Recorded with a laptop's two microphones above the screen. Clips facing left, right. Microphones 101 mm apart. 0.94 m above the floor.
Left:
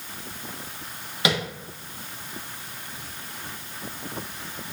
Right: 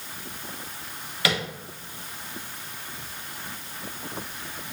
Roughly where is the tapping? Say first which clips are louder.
Left 2 dB; left.